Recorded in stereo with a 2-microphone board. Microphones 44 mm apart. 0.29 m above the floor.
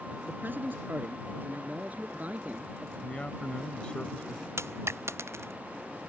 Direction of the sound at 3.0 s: 25° left (ahead or behind).